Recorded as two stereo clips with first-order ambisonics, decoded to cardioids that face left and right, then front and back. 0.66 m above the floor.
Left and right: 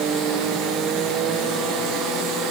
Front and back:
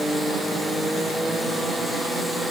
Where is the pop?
No pop in this recording.